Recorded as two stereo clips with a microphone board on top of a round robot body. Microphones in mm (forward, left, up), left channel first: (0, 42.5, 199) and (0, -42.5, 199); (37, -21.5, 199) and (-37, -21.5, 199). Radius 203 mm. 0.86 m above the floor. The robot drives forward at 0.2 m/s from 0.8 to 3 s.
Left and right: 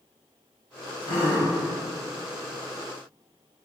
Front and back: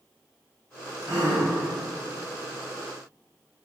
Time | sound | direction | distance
1.0 | a gasp | 125° left | 0.7 m